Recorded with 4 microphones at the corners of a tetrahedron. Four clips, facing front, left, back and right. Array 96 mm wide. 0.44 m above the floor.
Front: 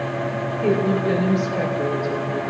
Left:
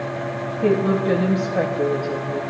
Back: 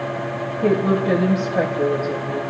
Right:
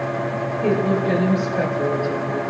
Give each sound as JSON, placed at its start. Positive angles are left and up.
{"t": 0.6, "sound": "a woman speaking", "azimuth_deg": 140, "distance_m": 1.9}